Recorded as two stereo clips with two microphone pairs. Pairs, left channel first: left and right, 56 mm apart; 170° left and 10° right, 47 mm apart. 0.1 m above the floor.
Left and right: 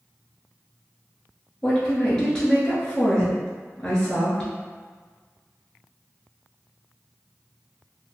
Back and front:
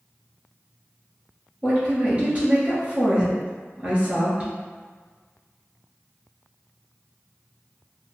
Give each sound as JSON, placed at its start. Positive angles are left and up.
{"t": 1.6, "sound": "a woman speaking", "azimuth_deg": 25, "distance_m": 1.2}